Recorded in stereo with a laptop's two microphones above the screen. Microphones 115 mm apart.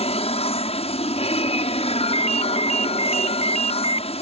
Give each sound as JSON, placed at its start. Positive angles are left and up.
{"t": 0.0, "sound": "an aircraft", "side_deg": 65}
{"t": 2.0, "sound": "a ringtone", "side_deg": 70}